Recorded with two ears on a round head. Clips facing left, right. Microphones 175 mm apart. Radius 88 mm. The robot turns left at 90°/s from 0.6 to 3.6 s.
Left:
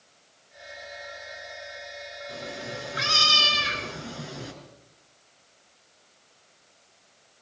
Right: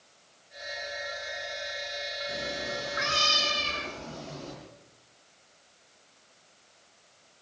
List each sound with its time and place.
2.3 s a cat meowing: 155° right, 5 m; by 4.5 s 85° left, 5 m